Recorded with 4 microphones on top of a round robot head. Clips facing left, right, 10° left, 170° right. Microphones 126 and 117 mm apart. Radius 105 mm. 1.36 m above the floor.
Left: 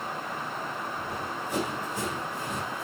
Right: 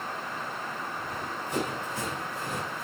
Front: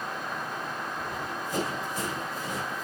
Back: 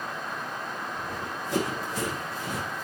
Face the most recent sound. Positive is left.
turn(degrees=165)